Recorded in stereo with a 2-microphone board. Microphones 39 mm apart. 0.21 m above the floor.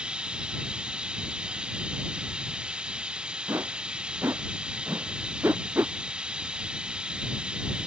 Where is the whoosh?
80° right.